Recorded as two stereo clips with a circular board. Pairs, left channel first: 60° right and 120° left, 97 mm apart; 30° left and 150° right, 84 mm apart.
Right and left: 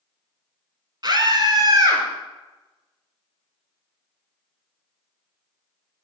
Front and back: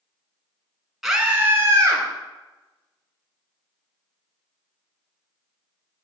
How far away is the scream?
About 1.6 m.